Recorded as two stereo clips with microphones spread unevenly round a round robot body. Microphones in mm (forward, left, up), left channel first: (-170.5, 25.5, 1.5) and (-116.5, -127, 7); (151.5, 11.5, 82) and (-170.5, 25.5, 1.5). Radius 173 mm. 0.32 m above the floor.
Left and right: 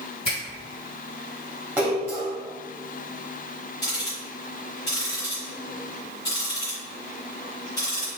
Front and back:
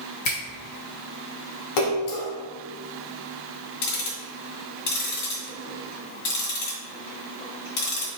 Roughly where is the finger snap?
Ahead left.